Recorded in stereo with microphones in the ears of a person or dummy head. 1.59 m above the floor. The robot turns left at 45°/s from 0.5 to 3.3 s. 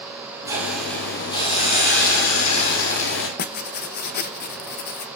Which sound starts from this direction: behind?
A hiss, at 0.5 s.